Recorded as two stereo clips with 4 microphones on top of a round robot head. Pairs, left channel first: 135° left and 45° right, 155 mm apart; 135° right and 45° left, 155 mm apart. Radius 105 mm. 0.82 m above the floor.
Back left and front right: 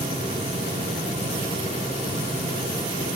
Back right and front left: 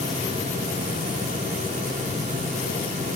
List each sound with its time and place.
Only background noise.